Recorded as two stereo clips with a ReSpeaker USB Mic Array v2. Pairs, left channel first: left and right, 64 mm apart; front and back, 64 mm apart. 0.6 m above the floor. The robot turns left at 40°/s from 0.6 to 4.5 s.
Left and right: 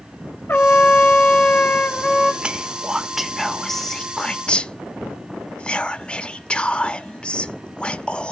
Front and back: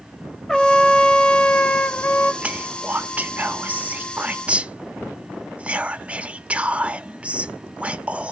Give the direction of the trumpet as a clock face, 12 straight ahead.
9 o'clock.